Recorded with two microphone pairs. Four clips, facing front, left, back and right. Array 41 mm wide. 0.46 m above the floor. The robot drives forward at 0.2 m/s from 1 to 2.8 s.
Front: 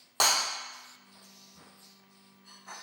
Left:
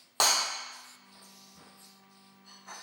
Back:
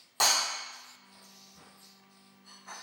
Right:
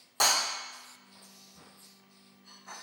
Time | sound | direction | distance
0.2 | breaking glass | 65° left | 1.1 m